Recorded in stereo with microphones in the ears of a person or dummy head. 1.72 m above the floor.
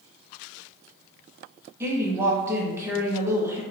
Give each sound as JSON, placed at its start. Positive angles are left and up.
{"t": 1.8, "sound": "a woman speaking", "side_deg": -15, "distance_m": 0.9}